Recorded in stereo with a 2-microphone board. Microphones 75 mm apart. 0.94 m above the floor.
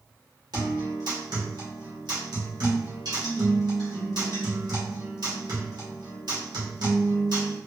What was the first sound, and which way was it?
A guitar, 70° right (ahead or behind).